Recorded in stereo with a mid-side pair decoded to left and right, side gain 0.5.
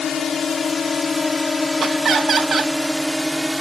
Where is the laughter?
45° right.